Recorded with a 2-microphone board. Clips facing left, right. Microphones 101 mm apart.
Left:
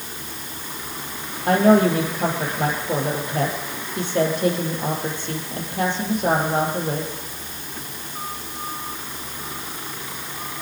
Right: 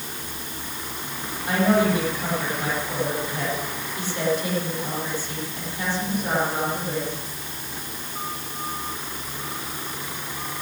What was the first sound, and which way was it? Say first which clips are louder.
A woman speaking: left 5 dB; 55° left (ahead or behind).